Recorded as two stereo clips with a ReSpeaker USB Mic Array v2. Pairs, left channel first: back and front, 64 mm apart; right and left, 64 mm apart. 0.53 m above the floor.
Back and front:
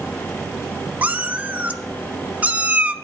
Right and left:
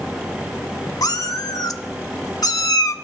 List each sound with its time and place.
1.0 s a cat meowing: 65° right, 0.6 m